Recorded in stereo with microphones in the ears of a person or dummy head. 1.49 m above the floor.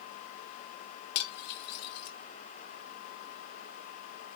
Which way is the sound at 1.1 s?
65° left (ahead or behind).